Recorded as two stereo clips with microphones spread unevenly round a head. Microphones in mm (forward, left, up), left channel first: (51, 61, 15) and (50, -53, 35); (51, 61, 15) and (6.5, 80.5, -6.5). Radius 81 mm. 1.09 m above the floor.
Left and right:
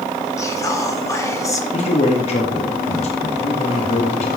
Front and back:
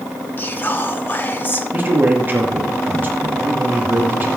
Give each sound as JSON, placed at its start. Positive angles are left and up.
{"t": 0.4, "sound": "whispering", "azimuth_deg": 30, "distance_m": 3.0}
{"t": 1.7, "sound": "a man speaking", "azimuth_deg": 120, "distance_m": 2.5}